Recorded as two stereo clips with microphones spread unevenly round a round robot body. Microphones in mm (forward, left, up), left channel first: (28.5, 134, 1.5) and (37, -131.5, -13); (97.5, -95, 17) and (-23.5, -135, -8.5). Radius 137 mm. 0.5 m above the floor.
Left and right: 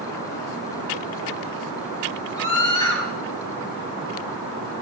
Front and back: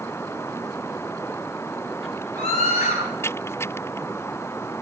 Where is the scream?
20° left, 4.5 m.